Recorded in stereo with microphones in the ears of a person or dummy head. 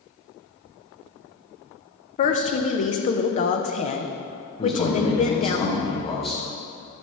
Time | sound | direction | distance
2.2 | a woman speaking | 40° left (ahead or behind) | 0.8 m
4.6 | a man speaking | 30° left (ahead or behind) | 1.7 m